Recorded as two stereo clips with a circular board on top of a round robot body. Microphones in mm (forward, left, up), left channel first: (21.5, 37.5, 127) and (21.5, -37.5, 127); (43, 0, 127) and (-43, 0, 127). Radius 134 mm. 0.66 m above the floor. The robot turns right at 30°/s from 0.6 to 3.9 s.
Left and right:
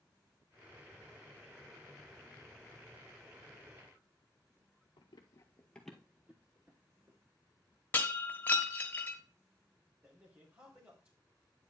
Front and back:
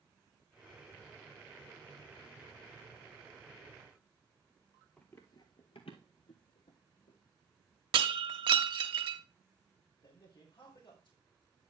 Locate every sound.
5.0 s running footsteps: 80° left, 1.2 m; by 7.2 s 30° right, 3 m
7.9 s breaking glass: 160° left, 1.1 m
10.0 s a man speaking: 35° right, 3 m